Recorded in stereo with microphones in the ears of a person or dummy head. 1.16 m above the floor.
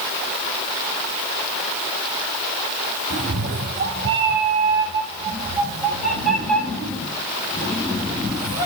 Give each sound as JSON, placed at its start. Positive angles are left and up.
{"t": 3.1, "sound": "a cat meowing", "side_deg": -55, "distance_m": 1.2}